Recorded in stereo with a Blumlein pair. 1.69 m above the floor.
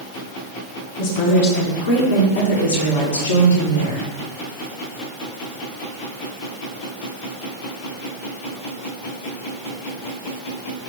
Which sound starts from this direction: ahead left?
A woman speaking, at 1.0 s.